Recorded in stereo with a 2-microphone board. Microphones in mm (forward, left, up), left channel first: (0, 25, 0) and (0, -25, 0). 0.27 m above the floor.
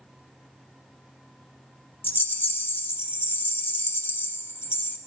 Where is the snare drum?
No snare drum in this recording.